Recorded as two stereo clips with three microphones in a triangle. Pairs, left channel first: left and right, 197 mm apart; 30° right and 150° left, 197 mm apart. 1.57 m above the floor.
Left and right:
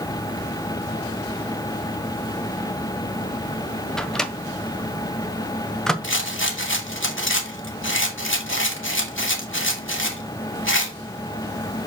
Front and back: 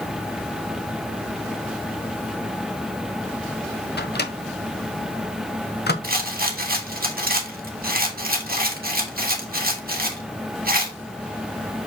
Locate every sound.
4.0 s a microwave: 5° left, 0.9 m
6.0 s a rattle: 105° left, 1.5 m